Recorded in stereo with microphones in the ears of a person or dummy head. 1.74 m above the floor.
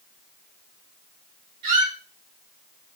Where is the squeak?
25° right (ahead or behind), 1.0 m.